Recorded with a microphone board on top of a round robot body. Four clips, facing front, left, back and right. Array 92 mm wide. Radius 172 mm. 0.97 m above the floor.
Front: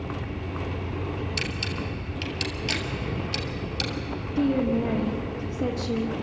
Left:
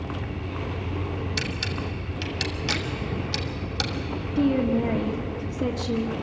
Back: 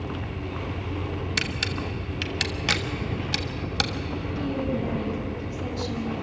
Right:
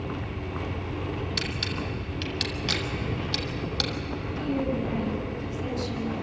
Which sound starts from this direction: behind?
A camera shutter, at 1.4 s.